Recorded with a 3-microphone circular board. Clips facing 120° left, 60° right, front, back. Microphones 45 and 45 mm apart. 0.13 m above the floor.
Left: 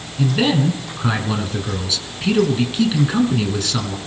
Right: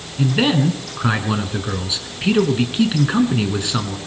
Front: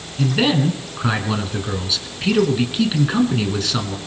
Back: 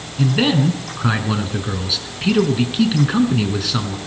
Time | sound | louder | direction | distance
0.2 | a man speaking | even, back 1 dB | 100° right | 1.6 m